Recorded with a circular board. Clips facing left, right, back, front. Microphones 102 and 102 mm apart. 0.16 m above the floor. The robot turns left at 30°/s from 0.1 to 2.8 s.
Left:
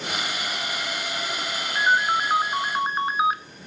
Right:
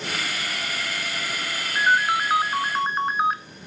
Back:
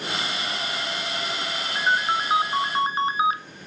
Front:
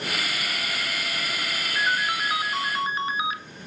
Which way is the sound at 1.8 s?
155° right.